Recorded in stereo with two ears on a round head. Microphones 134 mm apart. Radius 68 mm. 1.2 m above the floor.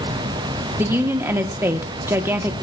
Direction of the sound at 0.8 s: 15° right (ahead or behind).